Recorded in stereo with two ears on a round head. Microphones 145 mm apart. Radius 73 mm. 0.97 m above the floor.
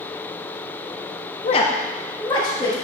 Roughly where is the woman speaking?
Left.